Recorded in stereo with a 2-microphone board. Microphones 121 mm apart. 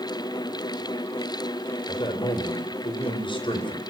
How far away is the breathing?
No breathing in this recording.